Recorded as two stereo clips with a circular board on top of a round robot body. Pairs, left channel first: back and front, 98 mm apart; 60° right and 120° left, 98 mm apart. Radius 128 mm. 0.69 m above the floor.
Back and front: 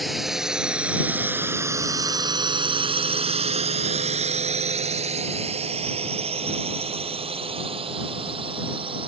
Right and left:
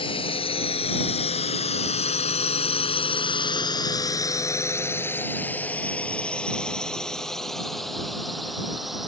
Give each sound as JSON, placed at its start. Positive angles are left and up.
{"t": 0.0, "sound": "a drone", "azimuth_deg": -90}